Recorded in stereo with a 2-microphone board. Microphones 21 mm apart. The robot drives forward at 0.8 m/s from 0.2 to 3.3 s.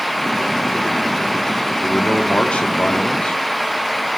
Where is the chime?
No chime in this recording.